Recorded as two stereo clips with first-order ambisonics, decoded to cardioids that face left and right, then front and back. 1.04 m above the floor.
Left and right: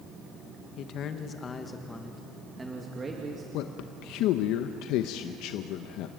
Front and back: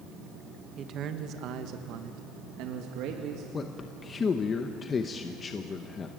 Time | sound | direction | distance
0.8 | a man speaking | 130° left | 1.4 m
3.5 | a man speaking | 70° left | 0.9 m